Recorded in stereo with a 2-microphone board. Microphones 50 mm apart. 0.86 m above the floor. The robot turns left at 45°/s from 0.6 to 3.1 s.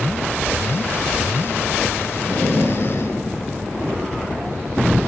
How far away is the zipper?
About 5.5 m.